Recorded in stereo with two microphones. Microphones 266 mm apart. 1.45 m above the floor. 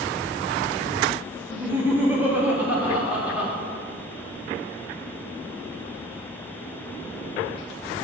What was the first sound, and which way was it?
Laughter, 5° right (ahead or behind).